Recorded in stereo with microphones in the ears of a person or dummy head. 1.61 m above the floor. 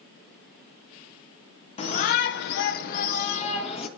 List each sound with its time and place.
1.8 s a shout: 30° left (ahead or behind), 0.9 m; by 3.9 s 35° left (ahead or behind), 1.7 m